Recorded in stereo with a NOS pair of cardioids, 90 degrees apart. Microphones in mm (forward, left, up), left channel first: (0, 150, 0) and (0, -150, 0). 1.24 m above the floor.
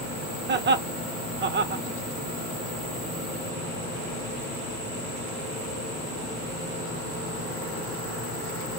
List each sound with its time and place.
0.5 s laughter: 35° right, 0.9 m